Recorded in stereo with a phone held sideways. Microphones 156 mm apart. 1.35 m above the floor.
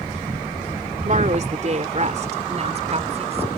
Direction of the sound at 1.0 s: 50° right (ahead or behind).